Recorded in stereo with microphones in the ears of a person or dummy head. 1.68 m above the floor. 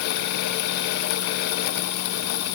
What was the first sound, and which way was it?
Only background noise.